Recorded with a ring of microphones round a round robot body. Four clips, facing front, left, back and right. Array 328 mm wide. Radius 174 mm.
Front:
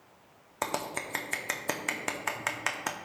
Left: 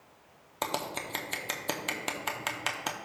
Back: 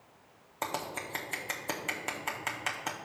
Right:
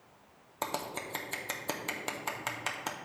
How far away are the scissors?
About 0.7 m.